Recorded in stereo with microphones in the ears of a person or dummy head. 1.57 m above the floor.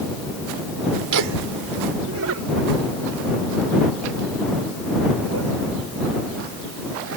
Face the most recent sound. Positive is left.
turn(degrees=-75)  # may be behind; listen again after turning